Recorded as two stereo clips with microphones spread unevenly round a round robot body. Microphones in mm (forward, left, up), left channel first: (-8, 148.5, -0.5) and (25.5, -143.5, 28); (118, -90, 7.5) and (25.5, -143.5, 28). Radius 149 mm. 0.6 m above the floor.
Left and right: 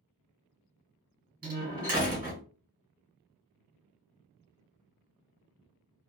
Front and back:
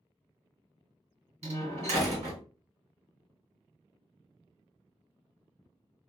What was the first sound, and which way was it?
A door slam, 145° right.